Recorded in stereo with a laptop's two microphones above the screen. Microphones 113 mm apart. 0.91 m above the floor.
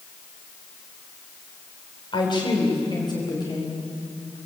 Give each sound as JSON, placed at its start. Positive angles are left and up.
{"t": 2.1, "sound": "a woman speaking", "side_deg": 45, "distance_m": 3.0}